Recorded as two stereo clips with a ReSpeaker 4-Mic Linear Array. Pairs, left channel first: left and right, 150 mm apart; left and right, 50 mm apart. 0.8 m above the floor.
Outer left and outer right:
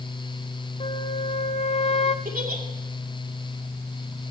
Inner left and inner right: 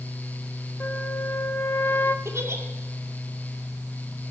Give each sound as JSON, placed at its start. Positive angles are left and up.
{"t": 0.8, "sound": "a flute", "side_deg": 45, "distance_m": 0.7}
{"t": 2.2, "sound": "a giggle", "side_deg": -70, "distance_m": 2.5}